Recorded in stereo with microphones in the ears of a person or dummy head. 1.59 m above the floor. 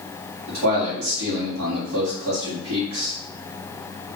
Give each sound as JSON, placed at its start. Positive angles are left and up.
{"t": 0.5, "sound": "a man speaking", "side_deg": -70, "distance_m": 2.0}